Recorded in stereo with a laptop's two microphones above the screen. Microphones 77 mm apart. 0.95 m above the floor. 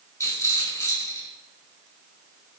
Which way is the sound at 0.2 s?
40° left (ahead or behind).